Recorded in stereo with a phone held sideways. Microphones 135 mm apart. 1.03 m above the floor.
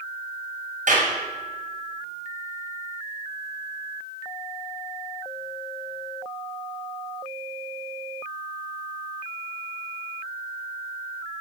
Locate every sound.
0.9 s a clap: 70° right (ahead or behind), 5.5 m